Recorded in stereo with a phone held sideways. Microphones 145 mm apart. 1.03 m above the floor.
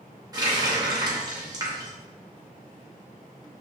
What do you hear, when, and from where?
0.3 s a running tap: 25° right (ahead or behind), 0.6 m